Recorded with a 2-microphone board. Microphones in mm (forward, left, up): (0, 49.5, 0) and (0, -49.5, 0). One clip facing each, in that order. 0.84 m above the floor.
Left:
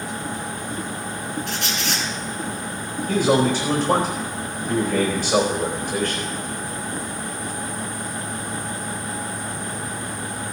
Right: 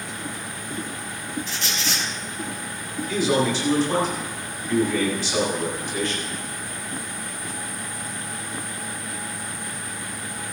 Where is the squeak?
65° left (ahead or behind), 5 m.